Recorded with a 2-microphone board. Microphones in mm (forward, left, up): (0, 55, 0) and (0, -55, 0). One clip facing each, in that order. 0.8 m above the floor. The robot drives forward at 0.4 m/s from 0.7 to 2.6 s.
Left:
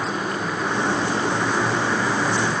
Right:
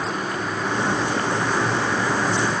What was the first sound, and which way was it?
Only background noise.